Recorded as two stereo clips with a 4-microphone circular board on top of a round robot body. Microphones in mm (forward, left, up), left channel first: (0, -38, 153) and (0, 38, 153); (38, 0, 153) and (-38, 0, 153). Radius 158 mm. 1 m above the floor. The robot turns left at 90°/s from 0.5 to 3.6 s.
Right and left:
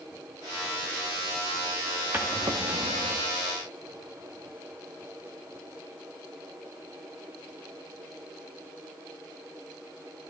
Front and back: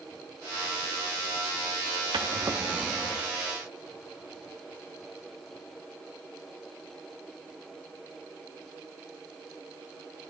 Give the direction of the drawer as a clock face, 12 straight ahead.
7 o'clock.